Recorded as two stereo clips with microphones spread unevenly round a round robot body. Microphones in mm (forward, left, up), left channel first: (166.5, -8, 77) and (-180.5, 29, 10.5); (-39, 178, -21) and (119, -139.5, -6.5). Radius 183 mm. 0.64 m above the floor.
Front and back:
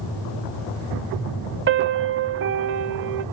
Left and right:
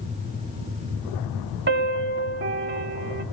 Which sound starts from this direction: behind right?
A piano, at 1.7 s.